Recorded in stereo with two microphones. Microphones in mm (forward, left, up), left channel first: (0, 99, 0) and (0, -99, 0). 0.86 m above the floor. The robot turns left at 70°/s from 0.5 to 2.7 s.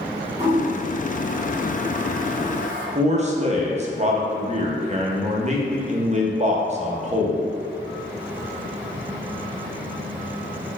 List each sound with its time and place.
0.4 s a toilet flushing: 15° right (ahead or behind), 1.3 m; by 2.9 s 10° right (ahead or behind), 1.3 m
3.0 s a man speaking: 35° right (ahead or behind), 0.5 m